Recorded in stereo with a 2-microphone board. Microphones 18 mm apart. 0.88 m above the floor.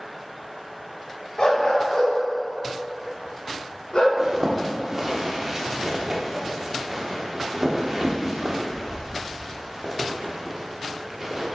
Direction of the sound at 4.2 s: 20° right (ahead or behind).